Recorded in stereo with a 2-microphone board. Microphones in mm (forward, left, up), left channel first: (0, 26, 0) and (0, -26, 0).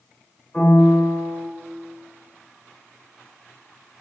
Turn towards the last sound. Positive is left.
turn(degrees=20)  # may be behind; listen again after turning